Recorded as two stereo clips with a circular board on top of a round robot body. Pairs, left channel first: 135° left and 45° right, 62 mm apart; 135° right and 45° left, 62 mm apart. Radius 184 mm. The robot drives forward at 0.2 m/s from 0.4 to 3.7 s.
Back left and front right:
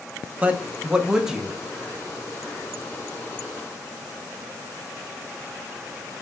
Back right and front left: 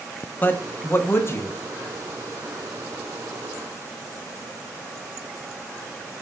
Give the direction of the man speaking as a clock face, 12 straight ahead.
3 o'clock.